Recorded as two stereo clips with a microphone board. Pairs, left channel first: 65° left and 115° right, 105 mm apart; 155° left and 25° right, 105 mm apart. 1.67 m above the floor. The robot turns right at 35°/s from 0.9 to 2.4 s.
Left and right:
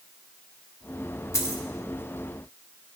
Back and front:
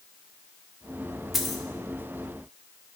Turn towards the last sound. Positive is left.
turn(degrees=100)